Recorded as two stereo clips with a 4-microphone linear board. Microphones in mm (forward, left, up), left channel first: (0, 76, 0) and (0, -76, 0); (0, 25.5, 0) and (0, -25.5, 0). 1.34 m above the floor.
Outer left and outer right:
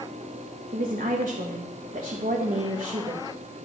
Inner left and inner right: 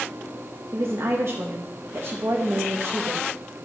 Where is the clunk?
No clunk in this recording.